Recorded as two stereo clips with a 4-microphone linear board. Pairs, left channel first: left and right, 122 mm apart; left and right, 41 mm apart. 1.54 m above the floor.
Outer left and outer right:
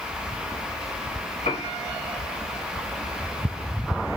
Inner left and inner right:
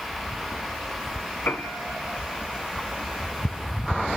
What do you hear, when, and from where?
1.4 s a piano: 65° left (ahead or behind), 1.9 m